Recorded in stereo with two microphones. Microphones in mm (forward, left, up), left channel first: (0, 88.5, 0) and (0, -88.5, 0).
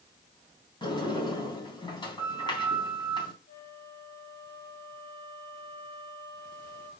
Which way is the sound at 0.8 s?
25° left (ahead or behind).